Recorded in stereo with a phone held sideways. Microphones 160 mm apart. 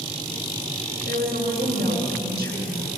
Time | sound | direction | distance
1.1 | a woman speaking | 80° right | 6.5 m